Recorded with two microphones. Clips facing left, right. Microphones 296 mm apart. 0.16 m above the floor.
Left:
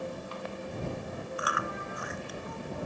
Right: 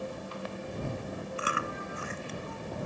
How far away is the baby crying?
I don't hear a baby crying.